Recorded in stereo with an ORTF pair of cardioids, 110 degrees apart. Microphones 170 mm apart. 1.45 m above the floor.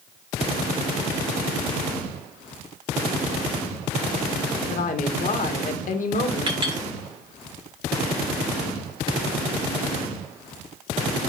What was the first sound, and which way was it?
A woman speaking, 55° left.